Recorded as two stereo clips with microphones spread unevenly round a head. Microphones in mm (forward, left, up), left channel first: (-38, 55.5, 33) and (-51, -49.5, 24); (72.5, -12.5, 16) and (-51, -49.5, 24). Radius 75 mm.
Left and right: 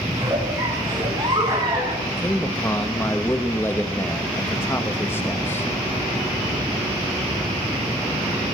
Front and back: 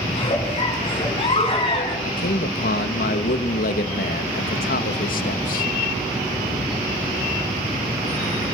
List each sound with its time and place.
0.1 s a giggle: 30° right, 6.5 m
2.0 s a man speaking: 10° left, 2.5 m